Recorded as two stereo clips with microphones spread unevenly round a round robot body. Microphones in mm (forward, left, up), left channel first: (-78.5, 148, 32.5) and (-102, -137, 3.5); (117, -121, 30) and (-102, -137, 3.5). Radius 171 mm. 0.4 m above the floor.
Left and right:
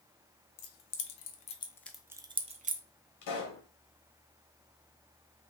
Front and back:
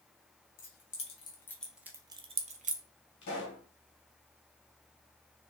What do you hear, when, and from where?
0.6 s keys jangling: 55° left, 0.8 m; by 2.8 s 140° right, 0.8 m
3.2 s a pop: 60° left, 1.4 m